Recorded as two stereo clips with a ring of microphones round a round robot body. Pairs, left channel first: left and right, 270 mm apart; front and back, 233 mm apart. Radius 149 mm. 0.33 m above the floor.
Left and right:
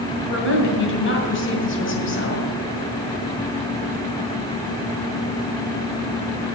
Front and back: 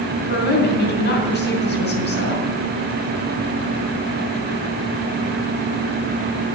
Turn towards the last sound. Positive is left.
turn(degrees=45)